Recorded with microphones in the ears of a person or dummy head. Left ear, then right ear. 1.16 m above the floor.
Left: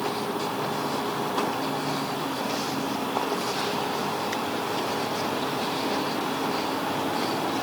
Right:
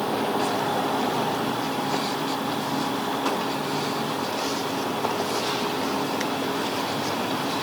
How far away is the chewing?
No chewing in this recording.